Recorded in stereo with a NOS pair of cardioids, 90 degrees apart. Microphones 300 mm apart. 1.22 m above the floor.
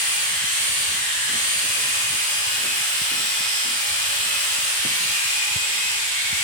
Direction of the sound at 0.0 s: 25° right.